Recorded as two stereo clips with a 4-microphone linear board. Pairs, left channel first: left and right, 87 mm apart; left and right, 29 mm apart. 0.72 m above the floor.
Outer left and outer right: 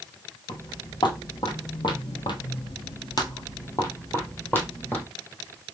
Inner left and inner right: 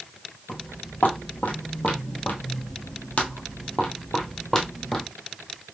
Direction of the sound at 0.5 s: 60° left (ahead or behind).